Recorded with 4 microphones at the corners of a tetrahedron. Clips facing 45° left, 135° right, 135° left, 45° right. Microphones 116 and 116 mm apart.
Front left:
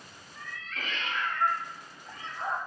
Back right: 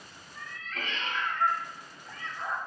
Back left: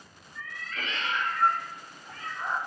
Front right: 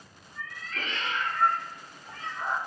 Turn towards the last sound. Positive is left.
turn(degrees=10)